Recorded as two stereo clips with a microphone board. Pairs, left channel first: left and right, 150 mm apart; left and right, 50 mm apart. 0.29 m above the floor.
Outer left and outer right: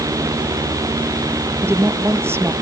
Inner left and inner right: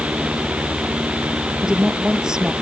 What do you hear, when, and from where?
1.6 s a woman speaking: 15° right (ahead or behind)